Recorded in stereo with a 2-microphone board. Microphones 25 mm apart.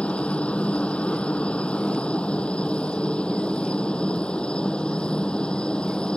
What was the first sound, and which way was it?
A helicopter, 50° left (ahead or behind).